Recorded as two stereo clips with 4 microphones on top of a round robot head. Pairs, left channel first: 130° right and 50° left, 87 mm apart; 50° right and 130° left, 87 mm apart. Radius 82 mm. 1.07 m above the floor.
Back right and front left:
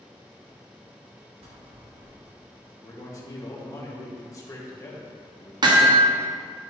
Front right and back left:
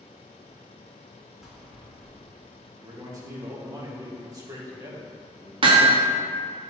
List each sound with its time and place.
1.4 s a bell: 45° left, 2 m
2.8 s a man speaking: straight behind, 2 m
5.6 s hammering: 95° left, 1.2 m